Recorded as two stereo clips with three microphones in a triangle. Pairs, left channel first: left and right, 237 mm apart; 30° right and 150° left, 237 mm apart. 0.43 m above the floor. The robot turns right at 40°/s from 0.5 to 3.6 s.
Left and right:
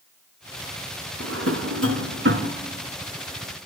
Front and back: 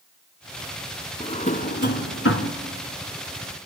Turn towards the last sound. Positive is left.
turn(degrees=-5)